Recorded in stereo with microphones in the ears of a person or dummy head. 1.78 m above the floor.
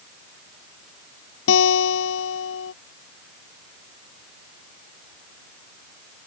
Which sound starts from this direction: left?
A guitar, at 1.5 s.